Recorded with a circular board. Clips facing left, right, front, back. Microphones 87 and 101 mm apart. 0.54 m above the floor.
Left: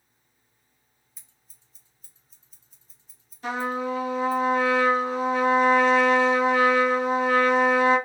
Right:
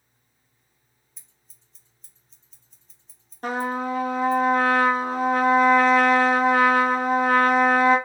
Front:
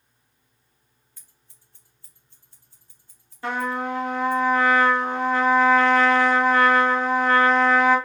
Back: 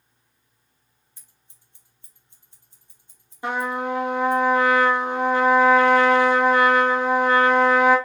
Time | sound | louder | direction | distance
1.2 | scissors | even, even | 170° left | 1.1 m
3.4 | a trumpet | right 1 dB, back 1 dB | 110° right | 0.9 m